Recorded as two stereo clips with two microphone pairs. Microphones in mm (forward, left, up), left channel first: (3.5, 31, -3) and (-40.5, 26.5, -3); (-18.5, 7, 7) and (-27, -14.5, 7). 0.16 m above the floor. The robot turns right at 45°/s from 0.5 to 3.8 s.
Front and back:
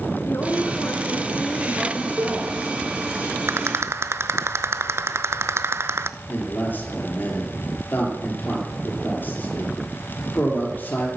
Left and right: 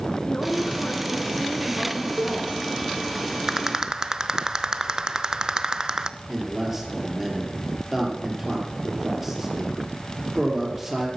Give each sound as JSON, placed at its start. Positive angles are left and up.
{"t": 0.2, "sound": "a woman speaking", "azimuth_deg": 20, "distance_m": 2.5}
{"t": 2.2, "sound": "a cowbell", "azimuth_deg": -105, "distance_m": 3.5}
{"t": 3.5, "sound": "a rattle", "azimuth_deg": 175, "distance_m": 0.7}
{"t": 6.3, "sound": "a man speaking", "azimuth_deg": -40, "distance_m": 4.5}